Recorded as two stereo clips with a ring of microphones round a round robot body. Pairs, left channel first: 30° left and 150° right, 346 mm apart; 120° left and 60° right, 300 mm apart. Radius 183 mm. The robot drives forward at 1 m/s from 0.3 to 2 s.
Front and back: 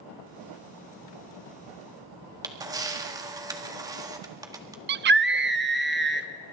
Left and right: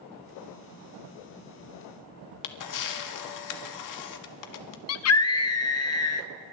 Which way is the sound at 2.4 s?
130° left.